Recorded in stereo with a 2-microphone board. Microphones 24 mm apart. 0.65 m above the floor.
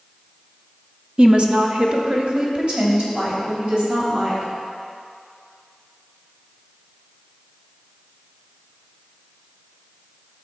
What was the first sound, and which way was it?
A woman speaking, 35° right (ahead or behind).